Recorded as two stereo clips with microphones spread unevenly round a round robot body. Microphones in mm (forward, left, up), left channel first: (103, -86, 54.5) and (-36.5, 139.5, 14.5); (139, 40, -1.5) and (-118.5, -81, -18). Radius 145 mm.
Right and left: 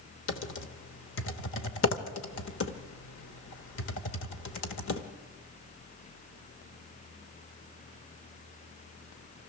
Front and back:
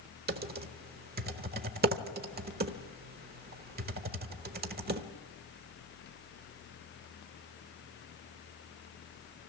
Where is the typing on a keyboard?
100° right, 1.1 m.